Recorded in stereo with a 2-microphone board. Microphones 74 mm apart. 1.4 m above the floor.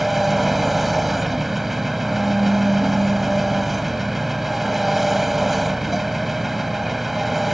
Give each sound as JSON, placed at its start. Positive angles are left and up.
{"t": 0.0, "sound": "an engine running", "side_deg": 0}